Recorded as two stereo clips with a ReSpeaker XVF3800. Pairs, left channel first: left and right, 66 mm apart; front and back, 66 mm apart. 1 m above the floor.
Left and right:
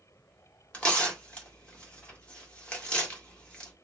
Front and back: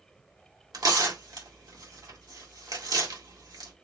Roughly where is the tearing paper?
Behind.